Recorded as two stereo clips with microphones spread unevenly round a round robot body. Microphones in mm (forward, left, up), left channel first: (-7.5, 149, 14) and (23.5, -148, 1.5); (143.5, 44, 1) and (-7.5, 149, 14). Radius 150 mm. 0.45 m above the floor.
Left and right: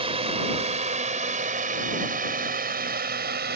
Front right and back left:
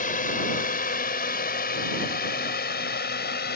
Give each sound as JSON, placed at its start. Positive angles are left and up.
{"t": 0.0, "sound": "a drone", "azimuth_deg": -20}